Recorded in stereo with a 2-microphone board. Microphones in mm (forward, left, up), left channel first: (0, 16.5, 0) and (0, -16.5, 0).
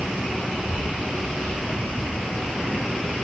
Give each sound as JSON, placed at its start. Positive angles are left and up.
{"t": 0.5, "sound": "a child speaking", "side_deg": 30, "distance_m": 7.0}